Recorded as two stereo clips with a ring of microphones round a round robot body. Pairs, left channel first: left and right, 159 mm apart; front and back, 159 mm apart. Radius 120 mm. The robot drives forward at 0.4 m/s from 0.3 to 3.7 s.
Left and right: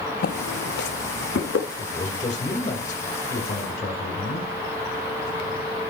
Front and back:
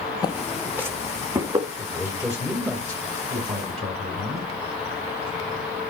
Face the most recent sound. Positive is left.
turn(degrees=145)